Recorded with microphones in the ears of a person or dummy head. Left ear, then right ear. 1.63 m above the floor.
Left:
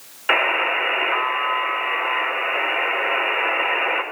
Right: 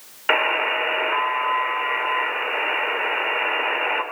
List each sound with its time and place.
0.3 s a buzzer: 15° right (ahead or behind), 4.5 m